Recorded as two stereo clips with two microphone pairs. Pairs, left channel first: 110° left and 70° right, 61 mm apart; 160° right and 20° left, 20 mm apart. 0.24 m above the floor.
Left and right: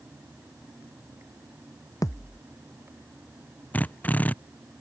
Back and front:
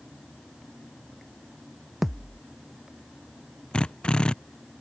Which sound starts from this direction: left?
A thud, at 2.0 s.